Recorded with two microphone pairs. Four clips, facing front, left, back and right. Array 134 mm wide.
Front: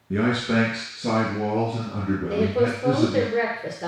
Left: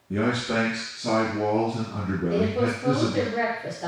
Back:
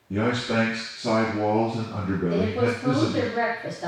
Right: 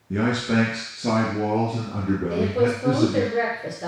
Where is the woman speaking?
30° right, 1.9 m.